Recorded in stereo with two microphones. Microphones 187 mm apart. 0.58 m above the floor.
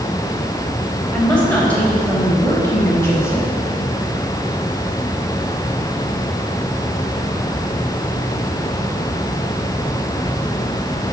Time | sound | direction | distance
1.1 | a woman speaking | 5° left (ahead or behind) | 4 m